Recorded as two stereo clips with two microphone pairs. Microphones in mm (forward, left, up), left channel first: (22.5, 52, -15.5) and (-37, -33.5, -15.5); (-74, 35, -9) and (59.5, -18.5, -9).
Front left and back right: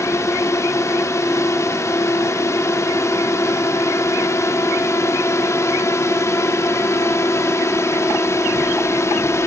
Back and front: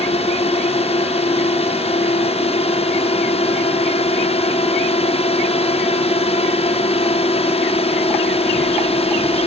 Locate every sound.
0.0 s a drone: 115° left